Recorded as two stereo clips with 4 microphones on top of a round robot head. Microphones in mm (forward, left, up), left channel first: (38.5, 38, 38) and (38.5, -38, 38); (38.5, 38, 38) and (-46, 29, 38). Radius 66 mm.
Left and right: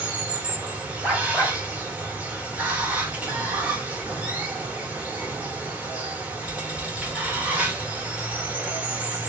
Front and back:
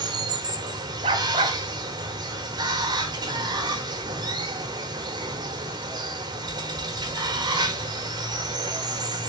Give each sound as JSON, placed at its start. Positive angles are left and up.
{"t": 0.0, "sound": "running water", "azimuth_deg": -160, "distance_m": 1.1}
{"t": 1.0, "sound": "a dog barking", "azimuth_deg": 180, "distance_m": 0.8}